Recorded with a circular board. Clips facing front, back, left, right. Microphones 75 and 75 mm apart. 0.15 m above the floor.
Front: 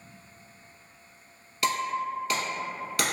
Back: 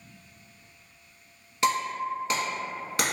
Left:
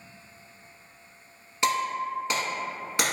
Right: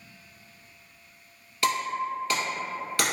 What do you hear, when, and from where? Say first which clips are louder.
1.6 s breaking glass: back 1 dB, left 1 dB; 140° left, 0.8 m